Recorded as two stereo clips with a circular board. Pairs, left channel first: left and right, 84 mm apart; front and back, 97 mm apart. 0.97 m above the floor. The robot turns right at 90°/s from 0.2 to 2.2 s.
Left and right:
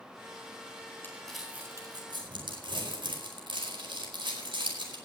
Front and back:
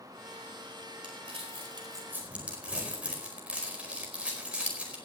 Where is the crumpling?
150° left, 4.5 m; by 5.0 s 105° right, 4.5 m.